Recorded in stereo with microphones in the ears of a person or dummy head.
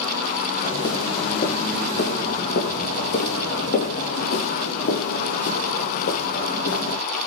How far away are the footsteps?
About 4.5 m.